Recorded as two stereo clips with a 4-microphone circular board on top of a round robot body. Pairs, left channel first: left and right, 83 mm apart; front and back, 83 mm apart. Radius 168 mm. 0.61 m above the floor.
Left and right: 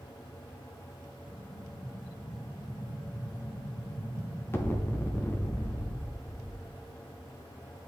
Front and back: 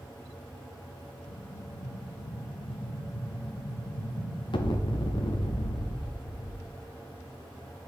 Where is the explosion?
25° left, 0.9 m.